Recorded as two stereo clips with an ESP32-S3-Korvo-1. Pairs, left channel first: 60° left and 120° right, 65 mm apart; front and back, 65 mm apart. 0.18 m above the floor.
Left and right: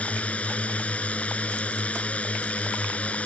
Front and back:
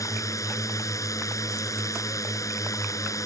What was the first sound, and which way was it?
A drone, 5° right.